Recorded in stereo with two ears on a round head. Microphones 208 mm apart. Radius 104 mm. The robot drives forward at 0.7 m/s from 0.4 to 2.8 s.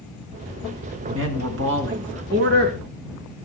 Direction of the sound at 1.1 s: 60° right (ahead or behind).